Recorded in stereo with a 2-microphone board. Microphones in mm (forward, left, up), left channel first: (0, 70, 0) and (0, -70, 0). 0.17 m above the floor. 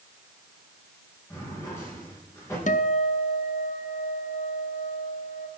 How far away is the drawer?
About 7.5 m.